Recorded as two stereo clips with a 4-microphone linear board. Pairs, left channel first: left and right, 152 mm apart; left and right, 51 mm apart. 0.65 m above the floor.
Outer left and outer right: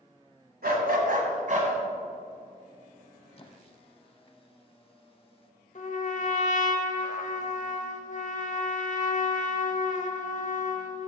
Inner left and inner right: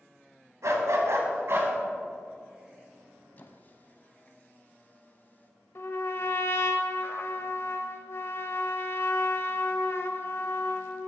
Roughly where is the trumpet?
Left.